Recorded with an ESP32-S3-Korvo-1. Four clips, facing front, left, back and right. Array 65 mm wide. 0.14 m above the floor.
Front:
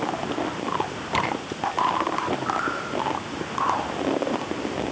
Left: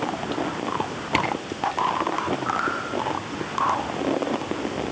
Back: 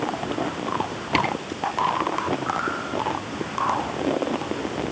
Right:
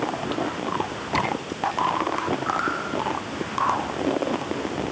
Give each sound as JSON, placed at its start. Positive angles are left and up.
{"t": 1.1, "sound": "a camera shutter", "azimuth_deg": 130, "distance_m": 3.5}